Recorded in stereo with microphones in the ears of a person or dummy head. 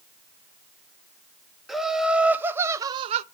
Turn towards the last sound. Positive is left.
turn(degrees=-50)  # may be behind; listen again after turning